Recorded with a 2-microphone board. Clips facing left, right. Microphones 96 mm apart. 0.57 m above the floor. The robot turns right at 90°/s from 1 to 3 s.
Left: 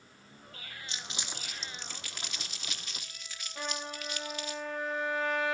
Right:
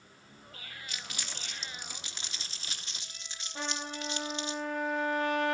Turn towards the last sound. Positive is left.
turn(degrees=-70)  # may be behind; listen again after turning